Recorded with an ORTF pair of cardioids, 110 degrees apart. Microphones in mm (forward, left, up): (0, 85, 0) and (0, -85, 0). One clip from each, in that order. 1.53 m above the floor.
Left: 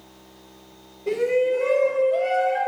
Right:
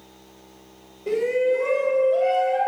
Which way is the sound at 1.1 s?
10° right.